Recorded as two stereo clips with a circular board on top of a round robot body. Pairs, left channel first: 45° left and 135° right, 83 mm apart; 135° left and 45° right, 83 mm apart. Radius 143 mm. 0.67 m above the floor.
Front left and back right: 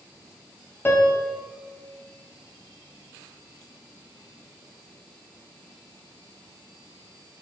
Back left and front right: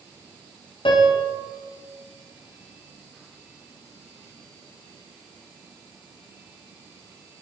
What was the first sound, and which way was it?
A piano, 110° left.